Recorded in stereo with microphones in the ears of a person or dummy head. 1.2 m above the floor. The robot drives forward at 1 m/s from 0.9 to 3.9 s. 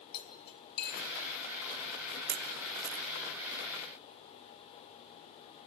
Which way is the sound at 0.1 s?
60° left (ahead or behind).